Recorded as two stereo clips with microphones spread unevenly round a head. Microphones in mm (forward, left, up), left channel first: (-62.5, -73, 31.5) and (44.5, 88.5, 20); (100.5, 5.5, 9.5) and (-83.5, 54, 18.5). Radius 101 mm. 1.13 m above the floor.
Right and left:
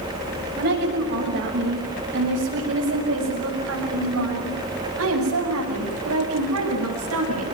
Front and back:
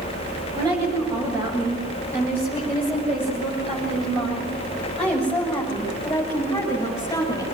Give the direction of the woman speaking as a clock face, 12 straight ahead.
9 o'clock.